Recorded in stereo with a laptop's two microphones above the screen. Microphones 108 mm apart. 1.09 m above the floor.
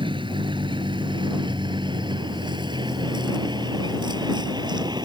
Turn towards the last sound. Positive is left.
turn(degrees=-40)  # may be behind; listen again after turning